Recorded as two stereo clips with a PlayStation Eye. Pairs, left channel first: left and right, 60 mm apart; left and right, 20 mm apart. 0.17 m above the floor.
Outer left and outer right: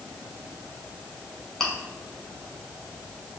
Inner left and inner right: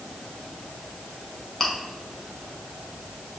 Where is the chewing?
5° left (ahead or behind), 1.1 m.